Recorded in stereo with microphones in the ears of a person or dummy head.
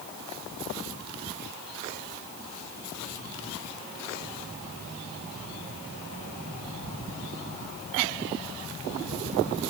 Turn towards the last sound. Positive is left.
No sound to turn to.